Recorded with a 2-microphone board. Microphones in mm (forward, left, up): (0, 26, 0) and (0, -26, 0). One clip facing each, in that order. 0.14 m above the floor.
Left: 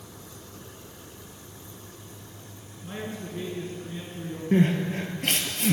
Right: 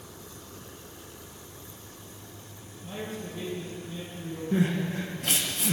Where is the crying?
55° left (ahead or behind), 0.9 m.